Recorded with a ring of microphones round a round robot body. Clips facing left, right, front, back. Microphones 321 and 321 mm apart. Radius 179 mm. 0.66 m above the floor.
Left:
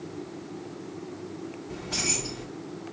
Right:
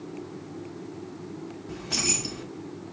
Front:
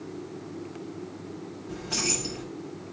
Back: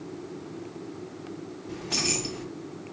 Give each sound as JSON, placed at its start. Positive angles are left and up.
{"t": 1.7, "sound": "keys jangling", "azimuth_deg": -100, "distance_m": 1.2}